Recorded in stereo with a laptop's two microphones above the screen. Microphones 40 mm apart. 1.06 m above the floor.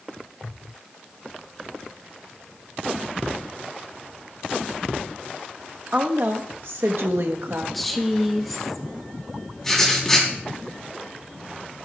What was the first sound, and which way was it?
A woman speaking, 45° right (ahead or behind).